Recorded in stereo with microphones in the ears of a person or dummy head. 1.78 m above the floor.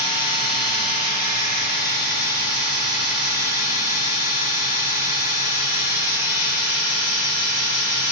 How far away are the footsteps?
I don't hear footsteps.